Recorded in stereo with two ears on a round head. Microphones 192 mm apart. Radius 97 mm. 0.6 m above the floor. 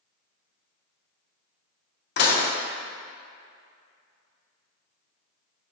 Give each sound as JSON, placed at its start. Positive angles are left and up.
{"t": 2.2, "sound": "dishes clattering", "side_deg": 50, "distance_m": 0.6}